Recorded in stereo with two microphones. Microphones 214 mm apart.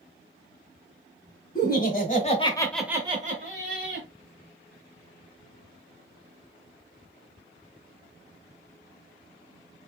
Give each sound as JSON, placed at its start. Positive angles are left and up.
{"t": 1.6, "sound": "laughter", "side_deg": 45, "distance_m": 2.0}